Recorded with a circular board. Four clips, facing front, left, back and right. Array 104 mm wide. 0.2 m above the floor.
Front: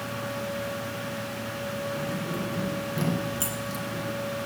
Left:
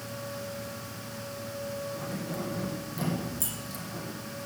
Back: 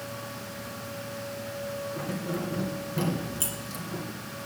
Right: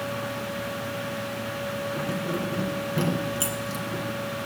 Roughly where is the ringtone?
I don't hear a ringtone.